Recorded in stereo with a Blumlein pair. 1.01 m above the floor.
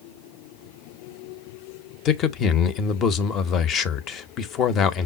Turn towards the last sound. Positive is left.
turn(degrees=30)